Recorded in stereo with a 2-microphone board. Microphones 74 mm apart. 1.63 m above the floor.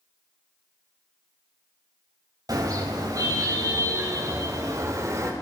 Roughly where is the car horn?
Right.